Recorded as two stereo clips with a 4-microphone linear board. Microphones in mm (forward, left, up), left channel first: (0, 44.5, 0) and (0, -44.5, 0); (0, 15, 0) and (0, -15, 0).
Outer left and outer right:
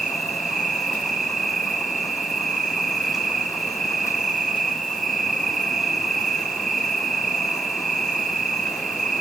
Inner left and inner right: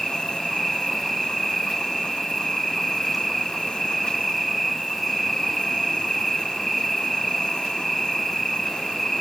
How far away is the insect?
About 0.7 m.